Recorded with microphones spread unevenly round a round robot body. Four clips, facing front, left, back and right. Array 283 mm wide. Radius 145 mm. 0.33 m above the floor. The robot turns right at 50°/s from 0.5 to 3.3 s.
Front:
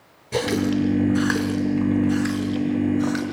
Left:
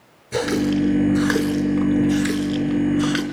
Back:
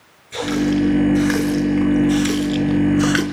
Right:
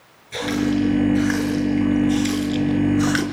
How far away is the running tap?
About 3.5 m.